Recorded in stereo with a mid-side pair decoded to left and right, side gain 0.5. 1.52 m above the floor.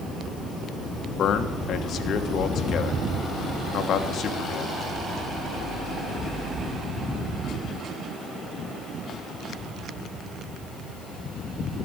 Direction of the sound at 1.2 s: 60° left.